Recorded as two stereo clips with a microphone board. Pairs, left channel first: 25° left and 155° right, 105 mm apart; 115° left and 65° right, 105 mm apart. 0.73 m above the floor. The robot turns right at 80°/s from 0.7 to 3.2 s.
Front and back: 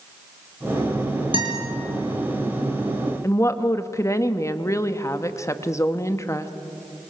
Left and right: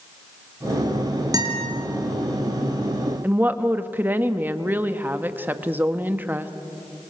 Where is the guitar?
120° right, 4 m; by 1.7 s 95° right, 4 m.